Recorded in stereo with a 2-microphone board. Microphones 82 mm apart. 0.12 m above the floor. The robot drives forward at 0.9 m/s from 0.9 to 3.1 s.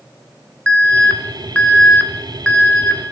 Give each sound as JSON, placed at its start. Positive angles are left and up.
{"t": 0.7, "sound": "an alarm", "side_deg": 15, "distance_m": 1.2}